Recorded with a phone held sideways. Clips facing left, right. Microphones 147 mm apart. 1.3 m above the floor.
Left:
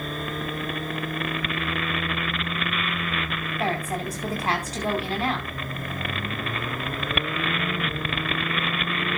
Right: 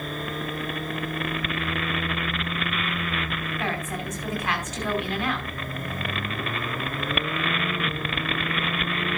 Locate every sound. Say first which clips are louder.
3.6 s a woman speaking: left 5 dB; 35° left (ahead or behind), 4.5 m